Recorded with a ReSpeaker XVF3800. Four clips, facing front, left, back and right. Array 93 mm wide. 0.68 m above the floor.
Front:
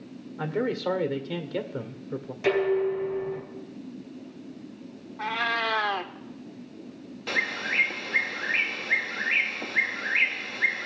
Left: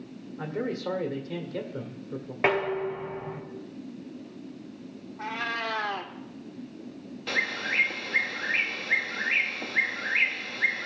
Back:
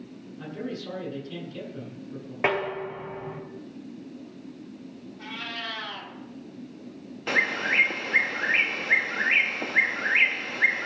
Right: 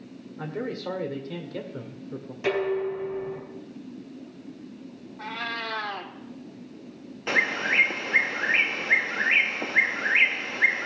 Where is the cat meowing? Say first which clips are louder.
Left 1 dB, front 10 dB; 10° left, 0.9 m.